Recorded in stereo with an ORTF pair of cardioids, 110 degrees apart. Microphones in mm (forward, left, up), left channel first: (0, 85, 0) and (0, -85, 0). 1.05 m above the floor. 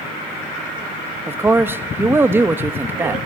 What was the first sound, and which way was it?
A man speaking, 15° right.